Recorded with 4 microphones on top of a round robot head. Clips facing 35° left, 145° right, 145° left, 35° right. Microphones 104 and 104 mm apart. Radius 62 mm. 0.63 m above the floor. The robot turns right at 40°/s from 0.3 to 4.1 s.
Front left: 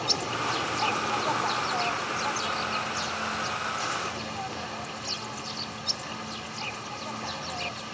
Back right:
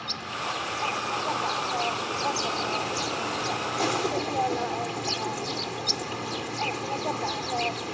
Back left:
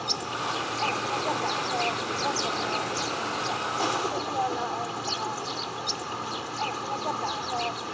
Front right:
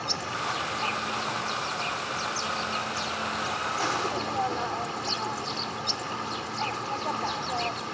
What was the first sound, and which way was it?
An insect, 75° left.